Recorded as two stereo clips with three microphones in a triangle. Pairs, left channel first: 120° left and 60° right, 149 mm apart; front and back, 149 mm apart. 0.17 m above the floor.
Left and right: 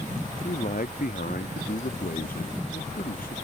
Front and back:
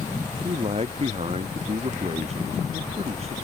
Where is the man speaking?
135° left.